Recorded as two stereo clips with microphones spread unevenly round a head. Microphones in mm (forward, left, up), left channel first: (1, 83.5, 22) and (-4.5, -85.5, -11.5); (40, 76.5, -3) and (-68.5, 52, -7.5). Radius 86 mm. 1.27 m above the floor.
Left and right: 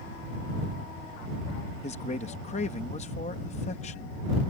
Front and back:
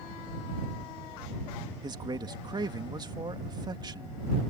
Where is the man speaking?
140° left.